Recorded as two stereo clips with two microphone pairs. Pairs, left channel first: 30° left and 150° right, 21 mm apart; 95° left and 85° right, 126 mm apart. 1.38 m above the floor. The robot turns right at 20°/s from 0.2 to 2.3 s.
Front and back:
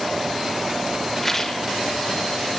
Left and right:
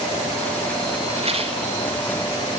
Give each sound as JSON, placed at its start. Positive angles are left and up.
{"t": 1.2, "sound": "a rattle", "azimuth_deg": -55, "distance_m": 2.5}